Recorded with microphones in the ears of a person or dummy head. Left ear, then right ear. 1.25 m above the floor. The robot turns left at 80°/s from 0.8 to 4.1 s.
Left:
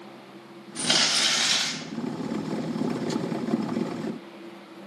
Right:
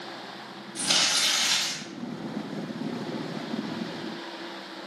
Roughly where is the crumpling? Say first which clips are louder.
Left 1 dB; behind left.